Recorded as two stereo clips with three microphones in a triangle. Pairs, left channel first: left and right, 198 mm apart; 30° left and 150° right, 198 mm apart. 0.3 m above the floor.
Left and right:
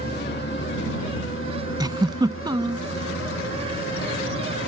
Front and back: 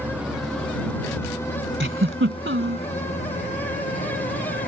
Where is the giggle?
160° right.